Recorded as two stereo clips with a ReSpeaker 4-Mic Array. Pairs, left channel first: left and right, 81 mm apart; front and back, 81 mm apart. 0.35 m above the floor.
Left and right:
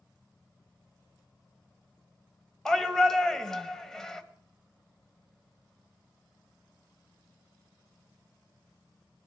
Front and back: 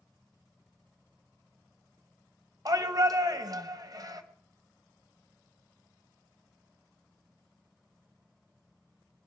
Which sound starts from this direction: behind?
A shout, at 2.6 s.